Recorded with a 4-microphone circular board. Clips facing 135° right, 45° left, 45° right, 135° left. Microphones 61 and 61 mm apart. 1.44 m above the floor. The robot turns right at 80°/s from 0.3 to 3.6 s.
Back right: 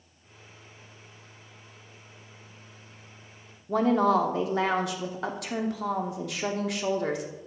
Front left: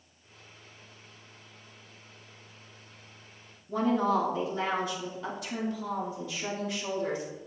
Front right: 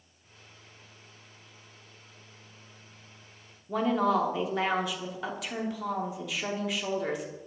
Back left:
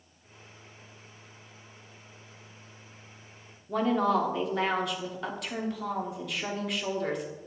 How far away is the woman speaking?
About 0.8 m.